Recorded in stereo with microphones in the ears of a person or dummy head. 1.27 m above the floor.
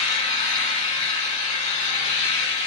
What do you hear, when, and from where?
0.0 s an engine running: 65° left (ahead or behind), 1.1 m